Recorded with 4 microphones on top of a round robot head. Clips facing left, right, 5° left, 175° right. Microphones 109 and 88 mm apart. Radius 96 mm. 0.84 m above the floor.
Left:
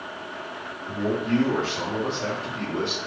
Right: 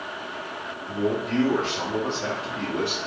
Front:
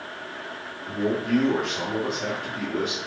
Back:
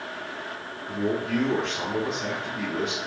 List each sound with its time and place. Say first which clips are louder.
0.9 s a man speaking: left 1 dB, front 3 dB; 15° left, 1.3 m; by 3.0 s 10° right, 2 m